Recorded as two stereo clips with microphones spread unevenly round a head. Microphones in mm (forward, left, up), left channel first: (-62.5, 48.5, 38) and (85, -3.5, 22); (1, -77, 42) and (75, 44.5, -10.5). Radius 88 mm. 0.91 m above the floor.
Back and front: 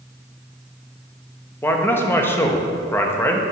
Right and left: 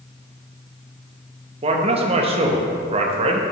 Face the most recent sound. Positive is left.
turn(degrees=85)